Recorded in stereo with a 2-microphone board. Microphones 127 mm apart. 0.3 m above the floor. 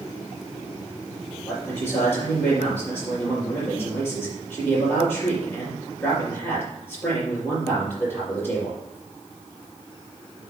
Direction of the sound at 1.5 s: 10° left (ahead or behind).